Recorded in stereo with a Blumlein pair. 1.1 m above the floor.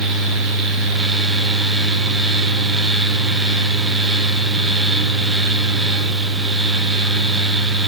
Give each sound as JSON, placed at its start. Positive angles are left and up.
{"t": 0.0, "sound": "a fan", "azimuth_deg": -5, "distance_m": 0.7}